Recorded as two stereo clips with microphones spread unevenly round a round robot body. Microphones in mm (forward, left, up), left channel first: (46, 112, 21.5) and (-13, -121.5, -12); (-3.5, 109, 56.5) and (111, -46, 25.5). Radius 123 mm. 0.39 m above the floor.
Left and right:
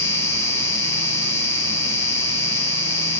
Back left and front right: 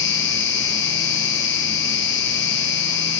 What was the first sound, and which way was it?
An insect, 160° left.